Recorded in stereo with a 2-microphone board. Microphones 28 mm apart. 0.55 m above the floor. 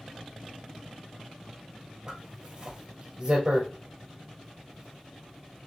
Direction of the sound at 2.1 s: 35° right (ahead or behind).